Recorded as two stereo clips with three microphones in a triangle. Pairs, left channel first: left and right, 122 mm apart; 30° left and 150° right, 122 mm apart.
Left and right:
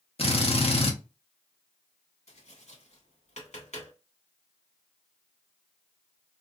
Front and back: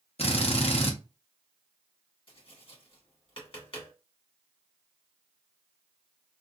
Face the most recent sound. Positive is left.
turn(degrees=70)